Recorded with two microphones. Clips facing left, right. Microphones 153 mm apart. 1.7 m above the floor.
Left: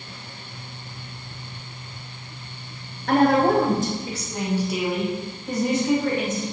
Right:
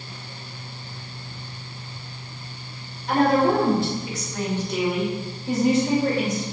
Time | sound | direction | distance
3.1 | a woman speaking | 65° left (ahead or behind) | 2.5 m